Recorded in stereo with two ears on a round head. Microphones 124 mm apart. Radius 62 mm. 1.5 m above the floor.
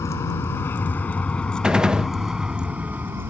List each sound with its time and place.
0.0 s a vehicle: 25° left (ahead or behind); by 3.3 s 20° right (ahead or behind)
1.6 s a gunshot: 5° right (ahead or behind)